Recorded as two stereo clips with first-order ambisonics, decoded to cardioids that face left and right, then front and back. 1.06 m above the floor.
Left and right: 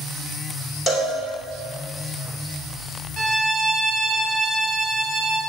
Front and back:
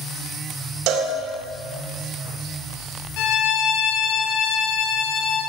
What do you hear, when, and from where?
0.9 s a cowbell: 160° left, 2.5 m
3.2 s a violin: 15° left, 4.5 m